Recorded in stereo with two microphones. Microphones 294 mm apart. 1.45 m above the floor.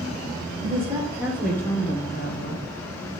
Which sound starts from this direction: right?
A woman speaking, at 0.6 s.